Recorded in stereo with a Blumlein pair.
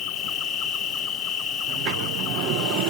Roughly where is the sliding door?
Ahead right.